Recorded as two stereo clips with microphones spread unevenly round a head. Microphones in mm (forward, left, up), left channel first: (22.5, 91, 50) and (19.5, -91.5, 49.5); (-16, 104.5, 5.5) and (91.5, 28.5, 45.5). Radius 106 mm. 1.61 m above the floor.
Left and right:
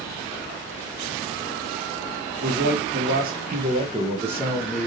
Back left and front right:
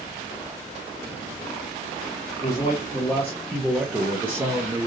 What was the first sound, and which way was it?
A man speaking, 135° right.